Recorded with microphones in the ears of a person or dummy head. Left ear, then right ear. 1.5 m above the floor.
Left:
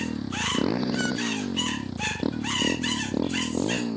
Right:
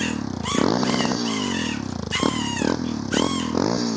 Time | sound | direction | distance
0.0 | a motorcycle | 40° right (ahead or behind) | ?